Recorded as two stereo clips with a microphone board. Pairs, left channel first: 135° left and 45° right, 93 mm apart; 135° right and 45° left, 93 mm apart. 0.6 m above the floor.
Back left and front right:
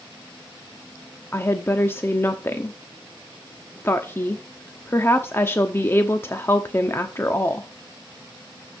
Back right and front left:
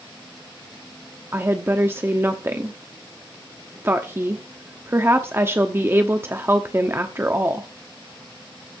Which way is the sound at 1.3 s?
90° left.